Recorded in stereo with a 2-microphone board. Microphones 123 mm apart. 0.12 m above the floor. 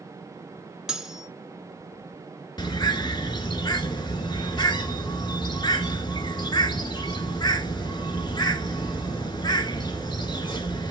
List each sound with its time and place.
0.9 s cutlery clinking: 5° right (ahead or behind), 0.9 m
2.6 s a bird: 35° left (ahead or behind), 0.7 m